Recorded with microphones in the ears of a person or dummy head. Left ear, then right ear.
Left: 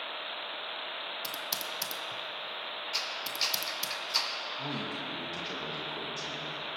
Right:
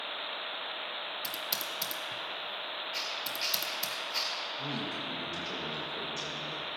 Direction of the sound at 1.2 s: 5° left (ahead or behind).